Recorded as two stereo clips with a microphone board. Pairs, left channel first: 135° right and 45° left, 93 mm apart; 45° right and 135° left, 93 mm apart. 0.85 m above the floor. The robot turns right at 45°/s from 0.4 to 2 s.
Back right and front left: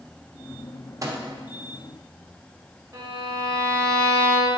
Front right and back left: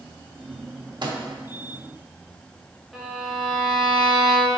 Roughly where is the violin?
Ahead left.